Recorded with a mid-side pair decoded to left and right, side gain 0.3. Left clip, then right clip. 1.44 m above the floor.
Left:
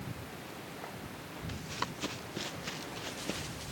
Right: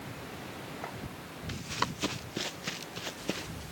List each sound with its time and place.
1.5 s running footsteps: 50° right; by 3.5 s 40° right